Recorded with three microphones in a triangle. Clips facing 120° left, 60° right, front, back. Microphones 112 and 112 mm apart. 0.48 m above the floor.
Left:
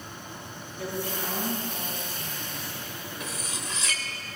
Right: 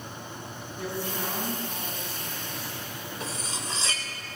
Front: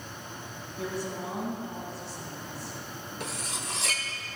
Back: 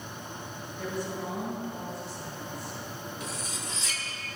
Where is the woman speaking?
5° right, 5.5 m.